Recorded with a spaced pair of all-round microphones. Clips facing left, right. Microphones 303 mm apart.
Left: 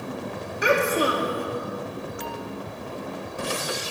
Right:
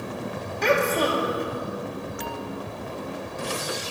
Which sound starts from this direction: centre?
A child speaking, at 0.6 s.